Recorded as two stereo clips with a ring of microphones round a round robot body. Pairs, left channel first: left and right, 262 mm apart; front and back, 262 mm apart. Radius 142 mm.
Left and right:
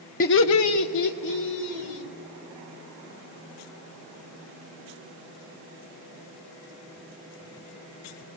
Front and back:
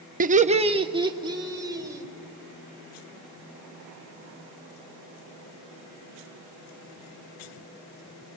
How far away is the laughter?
About 0.6 m.